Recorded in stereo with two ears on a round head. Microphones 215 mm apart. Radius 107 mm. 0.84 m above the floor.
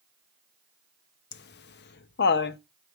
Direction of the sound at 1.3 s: 45° left (ahead or behind).